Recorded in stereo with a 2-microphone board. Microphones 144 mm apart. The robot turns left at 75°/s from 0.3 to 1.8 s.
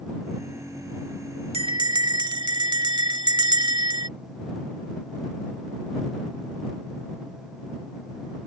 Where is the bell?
45° right (ahead or behind); by 4.1 s 30° right (ahead or behind).